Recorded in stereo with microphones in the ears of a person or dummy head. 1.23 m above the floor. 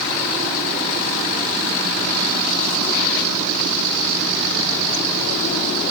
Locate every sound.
Only background noise.